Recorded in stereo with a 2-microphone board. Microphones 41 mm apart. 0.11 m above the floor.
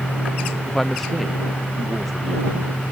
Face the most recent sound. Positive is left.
turn(degrees=5)  # may be behind; listen again after turning